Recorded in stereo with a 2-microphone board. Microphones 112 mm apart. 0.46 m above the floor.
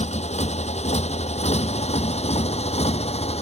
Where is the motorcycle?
80° left; by 3.4 s 70° left (ahead or behind).